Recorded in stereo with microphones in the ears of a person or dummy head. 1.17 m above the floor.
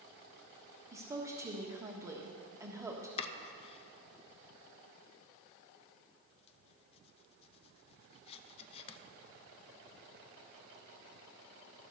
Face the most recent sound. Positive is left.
turn(degrees=35)  # may be behind; listen again after turning